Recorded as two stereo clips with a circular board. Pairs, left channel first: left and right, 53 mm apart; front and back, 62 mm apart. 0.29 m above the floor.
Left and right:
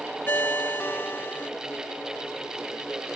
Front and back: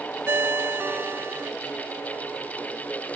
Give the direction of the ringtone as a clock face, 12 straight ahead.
8 o'clock.